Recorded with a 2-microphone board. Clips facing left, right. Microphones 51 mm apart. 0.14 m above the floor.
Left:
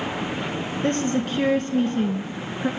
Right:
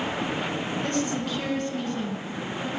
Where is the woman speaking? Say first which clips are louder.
Left 7 dB; 40° left (ahead or behind), 1.8 m.